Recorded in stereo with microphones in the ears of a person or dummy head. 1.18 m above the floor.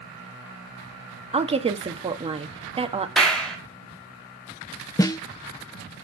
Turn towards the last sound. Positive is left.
turn(degrees=15)  # may be behind; listen again after turning